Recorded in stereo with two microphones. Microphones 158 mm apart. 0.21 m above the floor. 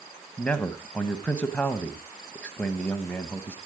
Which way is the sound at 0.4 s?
10° left (ahead or behind).